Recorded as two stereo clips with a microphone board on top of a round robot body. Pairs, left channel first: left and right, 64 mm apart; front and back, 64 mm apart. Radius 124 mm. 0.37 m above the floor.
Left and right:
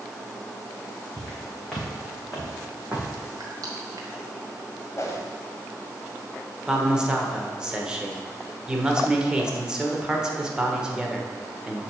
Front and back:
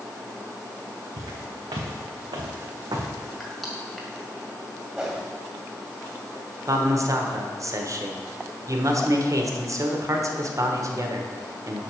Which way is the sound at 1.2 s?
170° left.